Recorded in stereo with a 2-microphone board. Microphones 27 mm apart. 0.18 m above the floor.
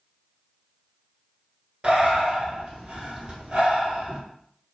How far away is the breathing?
About 1.2 m.